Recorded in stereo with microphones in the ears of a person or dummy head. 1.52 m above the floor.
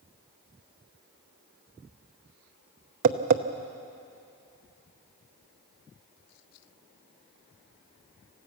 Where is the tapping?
50° right (ahead or behind), 0.8 m.